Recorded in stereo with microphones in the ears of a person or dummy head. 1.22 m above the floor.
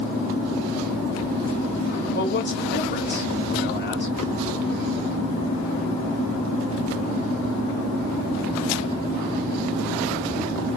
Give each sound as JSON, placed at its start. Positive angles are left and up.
{"t": 2.1, "sound": "a man speaking", "side_deg": 45, "distance_m": 1.4}